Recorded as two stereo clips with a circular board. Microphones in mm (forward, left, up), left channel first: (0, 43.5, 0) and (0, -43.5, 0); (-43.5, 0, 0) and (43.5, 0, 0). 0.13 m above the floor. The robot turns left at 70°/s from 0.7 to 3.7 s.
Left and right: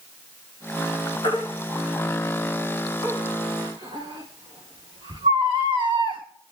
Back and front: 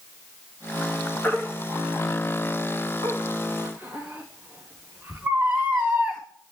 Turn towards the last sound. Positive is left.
turn(degrees=-65)